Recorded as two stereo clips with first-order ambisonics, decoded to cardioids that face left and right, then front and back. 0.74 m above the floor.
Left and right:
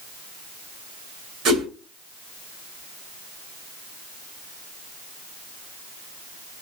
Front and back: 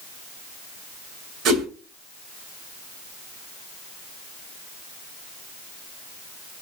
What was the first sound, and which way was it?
A whoosh, 135° right.